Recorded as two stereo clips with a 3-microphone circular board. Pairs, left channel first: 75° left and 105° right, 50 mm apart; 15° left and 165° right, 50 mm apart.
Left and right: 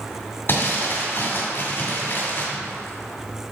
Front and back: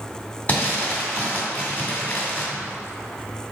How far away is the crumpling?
About 2 m.